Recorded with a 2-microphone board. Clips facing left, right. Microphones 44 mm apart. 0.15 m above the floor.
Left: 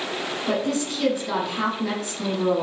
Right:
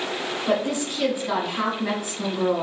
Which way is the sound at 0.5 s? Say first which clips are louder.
Right 1 dB; 20° right (ahead or behind).